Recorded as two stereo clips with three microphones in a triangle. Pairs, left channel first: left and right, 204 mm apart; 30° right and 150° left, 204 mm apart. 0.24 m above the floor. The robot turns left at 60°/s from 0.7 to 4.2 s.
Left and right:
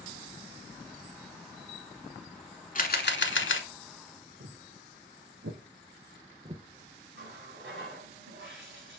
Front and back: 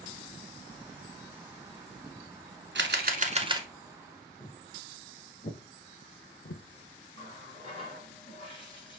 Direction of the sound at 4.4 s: 105° right.